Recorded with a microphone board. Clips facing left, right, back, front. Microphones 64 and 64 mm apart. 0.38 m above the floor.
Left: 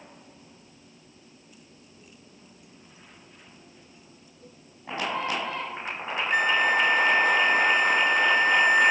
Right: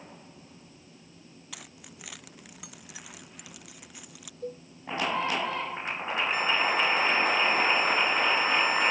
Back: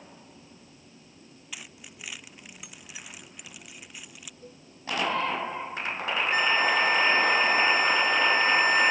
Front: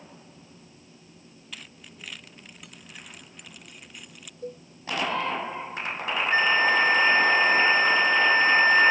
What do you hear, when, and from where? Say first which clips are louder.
1.5 s keys jangling: right 4 dB, even; 100° right; by 4.3 s 95° right
4.4 s a cowbell: right 15 dB, front 14 dB; 50° right
6.3 s a flute: left 6 dB, front 3 dB; 60° left